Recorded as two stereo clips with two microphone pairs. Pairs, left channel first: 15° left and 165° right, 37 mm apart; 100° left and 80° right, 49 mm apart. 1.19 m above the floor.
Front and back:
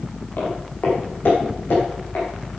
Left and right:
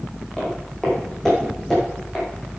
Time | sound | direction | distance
0.4 | footsteps | 20° left | 4 m